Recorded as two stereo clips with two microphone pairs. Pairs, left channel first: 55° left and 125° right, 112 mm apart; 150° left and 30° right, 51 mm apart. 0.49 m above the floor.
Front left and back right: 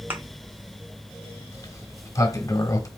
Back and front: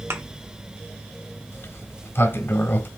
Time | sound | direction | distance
0.1 | a thud | 55° right | 1.1 m
1.5 | a sliding door | 115° left | 0.8 m